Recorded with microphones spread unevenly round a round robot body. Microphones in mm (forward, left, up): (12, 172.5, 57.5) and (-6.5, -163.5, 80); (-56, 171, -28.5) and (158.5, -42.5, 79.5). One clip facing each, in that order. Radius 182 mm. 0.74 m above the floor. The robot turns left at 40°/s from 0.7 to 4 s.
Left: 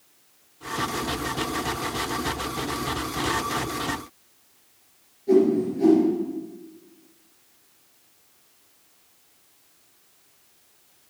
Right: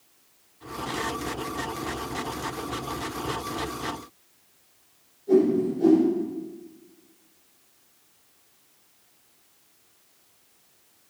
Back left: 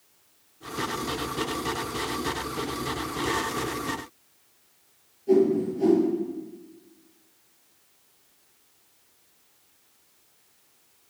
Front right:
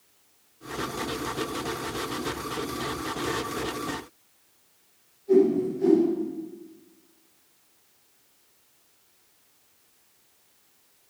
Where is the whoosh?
130° left, 4 m.